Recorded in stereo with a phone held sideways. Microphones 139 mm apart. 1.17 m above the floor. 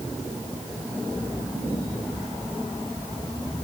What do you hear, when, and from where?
Only background noise.